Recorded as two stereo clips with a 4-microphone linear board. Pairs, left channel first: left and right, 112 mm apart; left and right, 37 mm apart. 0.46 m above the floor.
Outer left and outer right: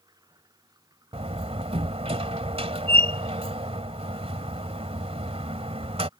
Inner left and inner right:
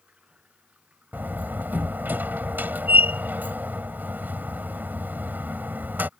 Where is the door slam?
70° right (ahead or behind).